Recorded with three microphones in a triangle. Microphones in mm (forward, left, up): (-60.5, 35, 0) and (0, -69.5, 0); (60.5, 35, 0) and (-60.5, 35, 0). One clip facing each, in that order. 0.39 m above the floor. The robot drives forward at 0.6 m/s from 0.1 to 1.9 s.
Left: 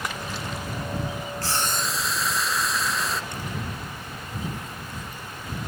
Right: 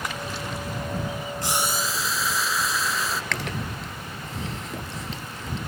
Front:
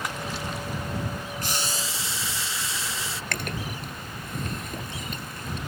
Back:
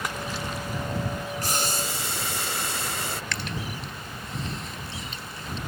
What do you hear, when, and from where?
1.4 s boiling: 130° right; by 3.2 s 150° right
3.3 s chewing: 45° right